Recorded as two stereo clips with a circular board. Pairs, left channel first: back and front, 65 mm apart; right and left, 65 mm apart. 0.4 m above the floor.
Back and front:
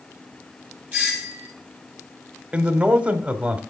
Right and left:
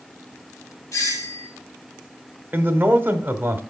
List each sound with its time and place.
0.9 s a doorbell: 70° right, 3 m
2.5 s a man speaking: 55° left, 1.0 m